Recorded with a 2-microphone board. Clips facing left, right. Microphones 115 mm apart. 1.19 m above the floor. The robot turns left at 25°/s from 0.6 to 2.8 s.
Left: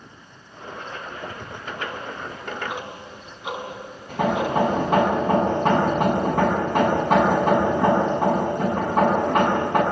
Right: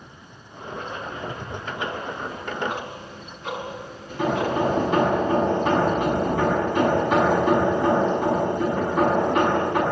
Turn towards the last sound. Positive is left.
turn(degrees=55)  # may be behind; listen again after turning